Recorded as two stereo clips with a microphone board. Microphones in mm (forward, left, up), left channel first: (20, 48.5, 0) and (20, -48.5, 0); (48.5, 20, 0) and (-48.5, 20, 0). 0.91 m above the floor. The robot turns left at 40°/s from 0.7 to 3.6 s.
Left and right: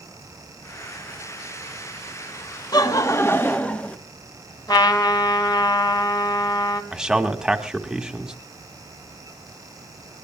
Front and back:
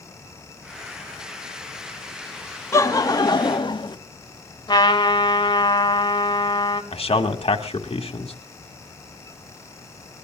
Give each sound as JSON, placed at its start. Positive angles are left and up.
{"t": 2.7, "sound": "laughter", "azimuth_deg": 50, "distance_m": 1.4}
{"t": 4.7, "sound": "a trumpet", "azimuth_deg": 45, "distance_m": 3.0}
{"t": 6.9, "sound": "a man speaking", "azimuth_deg": -5, "distance_m": 1.9}